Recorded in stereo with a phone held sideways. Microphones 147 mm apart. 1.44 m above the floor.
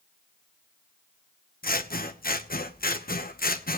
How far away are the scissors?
About 1.0 m.